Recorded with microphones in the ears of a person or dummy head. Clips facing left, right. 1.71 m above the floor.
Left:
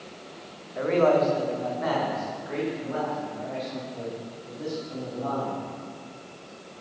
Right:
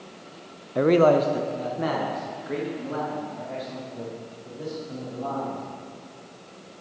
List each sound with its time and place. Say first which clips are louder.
0.8 s a man speaking: right 3 dB; 50° right (ahead or behind), 0.5 m; by 5.6 s 35° right (ahead or behind), 6 m